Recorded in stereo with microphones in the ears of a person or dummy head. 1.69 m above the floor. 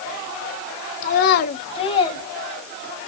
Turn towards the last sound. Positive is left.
turn(degrees=25)  # may be behind; listen again after turning